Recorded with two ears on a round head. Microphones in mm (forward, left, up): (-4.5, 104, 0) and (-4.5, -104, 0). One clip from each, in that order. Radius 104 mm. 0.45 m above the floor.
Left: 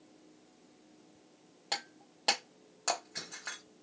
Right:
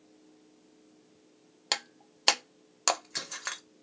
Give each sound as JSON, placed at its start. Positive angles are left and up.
{"t": 1.7, "sound": "breaking glass", "side_deg": -65, "distance_m": 0.6}